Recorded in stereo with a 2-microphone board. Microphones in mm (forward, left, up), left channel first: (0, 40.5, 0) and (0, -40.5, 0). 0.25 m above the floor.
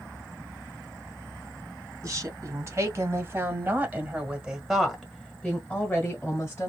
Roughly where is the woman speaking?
Right.